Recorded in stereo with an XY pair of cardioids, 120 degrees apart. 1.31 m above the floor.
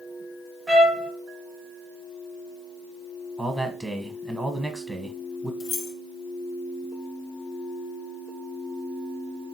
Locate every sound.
0.7 s a trumpet: 20° right, 0.8 m
3.4 s a man speaking: 10° right, 0.9 m
5.6 s keys jangling: 65° left, 0.6 m